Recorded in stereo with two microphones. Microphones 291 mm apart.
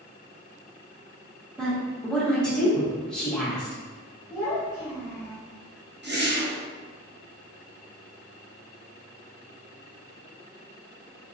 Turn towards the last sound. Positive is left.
turn(degrees=-35)  # may be behind; listen again after turning